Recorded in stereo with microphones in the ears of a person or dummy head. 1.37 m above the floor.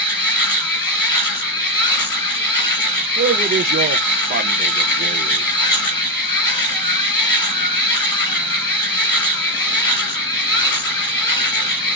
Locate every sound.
0.0 s a machine running: 30° left (ahead or behind), 3 m
3.2 s a man speaking: 45° right (ahead or behind), 0.6 m